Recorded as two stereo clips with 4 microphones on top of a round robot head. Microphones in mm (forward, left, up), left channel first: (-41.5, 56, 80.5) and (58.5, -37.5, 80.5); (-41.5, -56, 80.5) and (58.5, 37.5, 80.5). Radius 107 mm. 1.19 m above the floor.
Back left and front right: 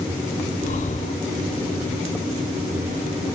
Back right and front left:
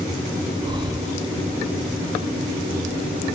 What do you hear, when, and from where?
0.6 s breathing: 105° left